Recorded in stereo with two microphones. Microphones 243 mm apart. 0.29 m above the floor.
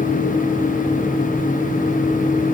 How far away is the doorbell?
No doorbell in this recording.